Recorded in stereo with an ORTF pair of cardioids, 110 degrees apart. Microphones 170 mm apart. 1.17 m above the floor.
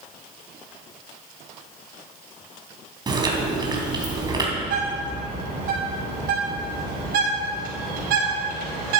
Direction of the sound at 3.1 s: 25° right.